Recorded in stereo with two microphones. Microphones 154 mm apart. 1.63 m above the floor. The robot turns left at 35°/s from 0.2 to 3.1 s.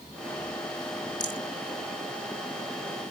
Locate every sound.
1.2 s a rattle: 30° left (ahead or behind); by 1.4 s 35° left (ahead or behind)